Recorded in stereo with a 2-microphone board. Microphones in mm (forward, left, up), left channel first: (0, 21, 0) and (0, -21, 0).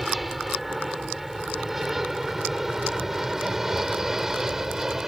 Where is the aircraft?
5° right (ahead or behind); by 5.1 s 10° right (ahead or behind).